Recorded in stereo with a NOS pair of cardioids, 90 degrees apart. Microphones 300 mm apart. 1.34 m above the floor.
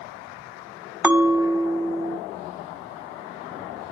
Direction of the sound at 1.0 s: 5° right.